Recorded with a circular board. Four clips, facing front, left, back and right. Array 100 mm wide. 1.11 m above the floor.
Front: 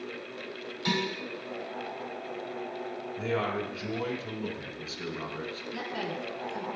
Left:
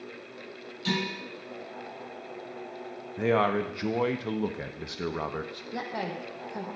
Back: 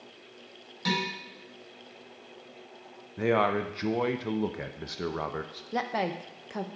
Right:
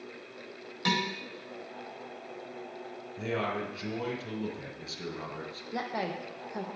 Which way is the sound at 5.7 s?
175° right.